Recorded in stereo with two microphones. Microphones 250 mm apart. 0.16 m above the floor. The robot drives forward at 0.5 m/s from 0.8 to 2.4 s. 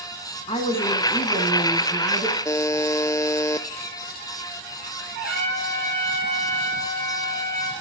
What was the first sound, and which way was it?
A woman speaking, 25° left (ahead or behind).